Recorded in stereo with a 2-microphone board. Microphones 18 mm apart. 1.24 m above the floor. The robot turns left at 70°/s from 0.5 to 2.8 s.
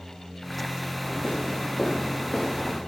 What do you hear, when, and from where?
1.0 s footsteps: 45° left (ahead or behind), 4.5 m; by 2.8 s 5° left (ahead or behind), 6 m